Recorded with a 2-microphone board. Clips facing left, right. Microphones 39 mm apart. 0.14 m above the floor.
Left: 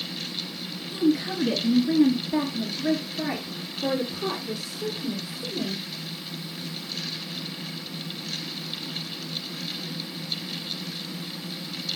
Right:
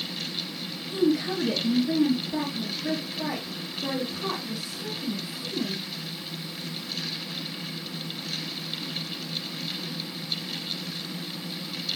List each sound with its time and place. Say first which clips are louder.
0.9 s a woman speaking: left 1 dB; 5° right (ahead or behind), 1.2 m; by 5.8 s 40° left (ahead or behind), 3 m